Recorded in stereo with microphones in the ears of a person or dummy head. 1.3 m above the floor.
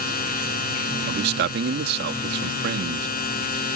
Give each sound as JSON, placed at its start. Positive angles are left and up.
{"t": 0.0, "sound": "a machine running", "side_deg": 55}
{"t": 1.1, "sound": "a man speaking", "side_deg": -60}